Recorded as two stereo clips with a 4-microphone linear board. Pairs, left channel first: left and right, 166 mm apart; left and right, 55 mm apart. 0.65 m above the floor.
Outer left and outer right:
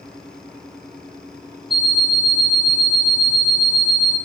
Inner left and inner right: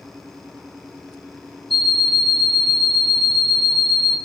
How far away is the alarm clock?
About 0.9 m.